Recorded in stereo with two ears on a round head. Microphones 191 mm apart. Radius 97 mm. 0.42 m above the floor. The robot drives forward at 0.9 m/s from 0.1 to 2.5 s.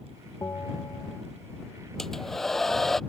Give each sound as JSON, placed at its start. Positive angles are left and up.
{"t": 0.4, "sound": "a bell", "side_deg": 15}
{"t": 2.0, "sound": "a hair dryer", "side_deg": 0}